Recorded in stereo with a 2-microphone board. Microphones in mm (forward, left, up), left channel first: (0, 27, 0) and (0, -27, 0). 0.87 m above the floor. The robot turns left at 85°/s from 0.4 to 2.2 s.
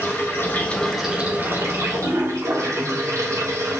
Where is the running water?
50° left, 3.5 m; by 3.8 s 105° right, 3.5 m.